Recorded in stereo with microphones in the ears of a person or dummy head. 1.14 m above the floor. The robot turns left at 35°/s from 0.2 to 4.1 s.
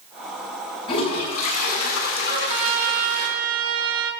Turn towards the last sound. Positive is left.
turn(degrees=-160)